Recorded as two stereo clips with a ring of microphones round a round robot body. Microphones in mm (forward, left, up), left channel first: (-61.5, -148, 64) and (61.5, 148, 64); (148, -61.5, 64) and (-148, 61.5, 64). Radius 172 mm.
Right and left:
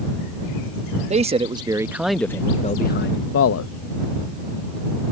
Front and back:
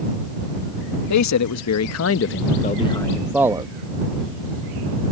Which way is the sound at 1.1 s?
Straight ahead.